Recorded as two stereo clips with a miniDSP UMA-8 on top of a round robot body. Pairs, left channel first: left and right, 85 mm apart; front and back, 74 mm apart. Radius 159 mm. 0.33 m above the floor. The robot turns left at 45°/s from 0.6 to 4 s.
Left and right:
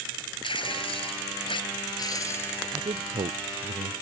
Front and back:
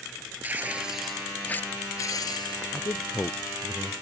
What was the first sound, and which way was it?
Tearing paper, 110° left.